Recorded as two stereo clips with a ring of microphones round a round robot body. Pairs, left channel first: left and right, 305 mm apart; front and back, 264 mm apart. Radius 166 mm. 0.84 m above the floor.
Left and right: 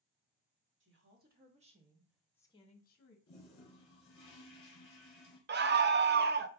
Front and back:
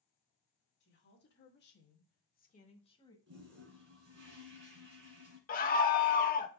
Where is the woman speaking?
45° right, 1.6 m; by 3.2 s 65° left, 1.1 m.